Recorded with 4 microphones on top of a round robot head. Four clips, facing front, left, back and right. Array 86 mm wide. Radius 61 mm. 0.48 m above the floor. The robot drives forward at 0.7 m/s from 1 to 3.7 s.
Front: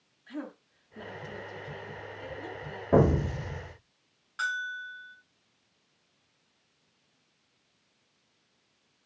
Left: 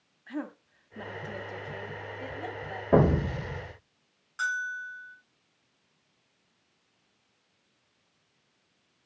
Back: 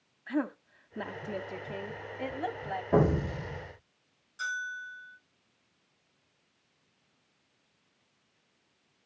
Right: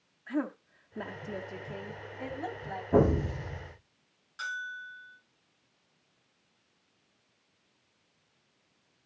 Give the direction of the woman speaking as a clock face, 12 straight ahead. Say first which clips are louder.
Right 4 dB, back 8 dB; 5 o'clock.